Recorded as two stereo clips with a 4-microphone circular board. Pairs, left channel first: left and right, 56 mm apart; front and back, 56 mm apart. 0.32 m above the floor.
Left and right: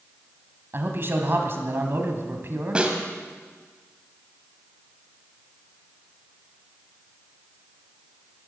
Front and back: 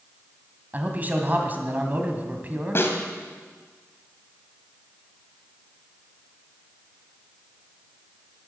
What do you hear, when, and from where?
0.7 s a man speaking: 125° right, 2.5 m
2.8 s a snare drum: 25° right, 2 m